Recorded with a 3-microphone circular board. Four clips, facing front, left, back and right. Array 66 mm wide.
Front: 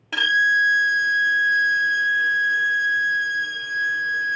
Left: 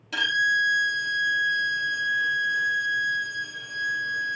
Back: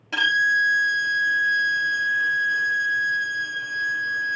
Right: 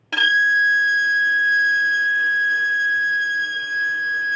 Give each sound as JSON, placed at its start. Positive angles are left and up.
{"t": 0.1, "sound": "a violin", "azimuth_deg": -80, "distance_m": 1.1}